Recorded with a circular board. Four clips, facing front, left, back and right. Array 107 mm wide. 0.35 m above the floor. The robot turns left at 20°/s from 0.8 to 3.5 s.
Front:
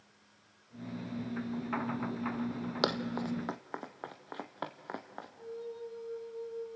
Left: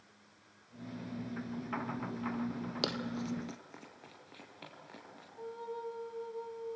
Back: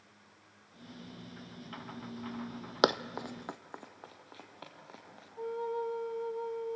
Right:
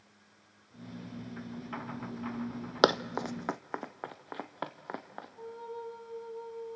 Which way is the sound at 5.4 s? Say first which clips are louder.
Left 1 dB, back 8 dB; straight behind.